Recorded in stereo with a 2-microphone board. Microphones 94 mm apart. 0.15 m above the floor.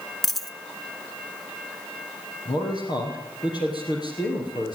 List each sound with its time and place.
0.2 s a dropped coin: centre (ahead or behind), 0.7 m
2.5 s a man speaking: 50° left (ahead or behind), 4.5 m